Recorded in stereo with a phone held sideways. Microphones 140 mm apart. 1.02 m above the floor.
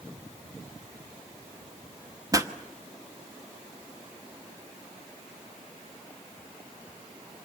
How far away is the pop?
About 1.1 m.